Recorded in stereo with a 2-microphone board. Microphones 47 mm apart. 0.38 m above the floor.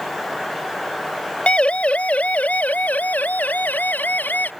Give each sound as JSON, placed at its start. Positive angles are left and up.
{"t": 1.5, "sound": "a siren", "side_deg": 25}